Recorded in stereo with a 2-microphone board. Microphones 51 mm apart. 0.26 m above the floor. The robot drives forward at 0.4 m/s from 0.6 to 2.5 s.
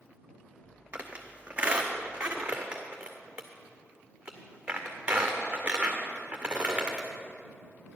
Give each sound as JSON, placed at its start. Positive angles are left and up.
{"t": 0.9, "sound": "a squeak", "side_deg": -25, "distance_m": 1.3}